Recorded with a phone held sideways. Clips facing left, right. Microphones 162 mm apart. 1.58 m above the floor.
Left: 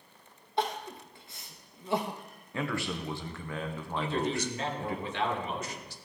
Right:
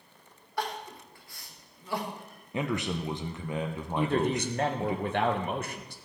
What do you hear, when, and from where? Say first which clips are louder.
0.6 s crying: left 3 dB; 20° left (ahead or behind), 0.9 m
2.5 s a man speaking: right 3 dB; 20° right (ahead or behind), 0.8 m
4.0 s a man speaking: right 4 dB; 55° right (ahead or behind), 1.0 m